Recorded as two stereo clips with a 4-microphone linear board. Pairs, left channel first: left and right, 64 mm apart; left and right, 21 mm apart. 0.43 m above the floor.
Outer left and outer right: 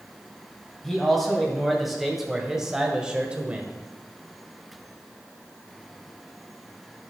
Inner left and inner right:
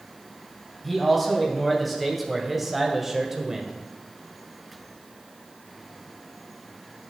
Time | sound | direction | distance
0.8 | a man speaking | 5° left (ahead or behind) | 3 m